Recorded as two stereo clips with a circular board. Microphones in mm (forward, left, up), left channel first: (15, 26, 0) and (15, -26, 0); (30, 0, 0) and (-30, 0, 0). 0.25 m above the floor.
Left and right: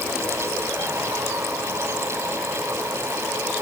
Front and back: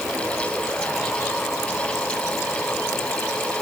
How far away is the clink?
No clink in this recording.